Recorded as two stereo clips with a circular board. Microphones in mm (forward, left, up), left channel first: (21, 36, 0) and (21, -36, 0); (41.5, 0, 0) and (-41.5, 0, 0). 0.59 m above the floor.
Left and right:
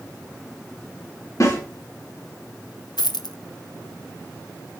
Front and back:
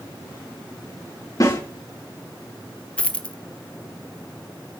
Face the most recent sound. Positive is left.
turn(degrees=75)